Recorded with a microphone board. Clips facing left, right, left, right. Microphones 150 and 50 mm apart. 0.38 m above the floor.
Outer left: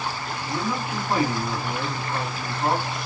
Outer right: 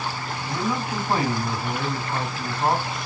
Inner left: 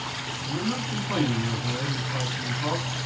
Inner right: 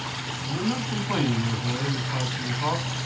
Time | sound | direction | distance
0.5 | a man speaking | 25° right (ahead or behind) | 3.5 m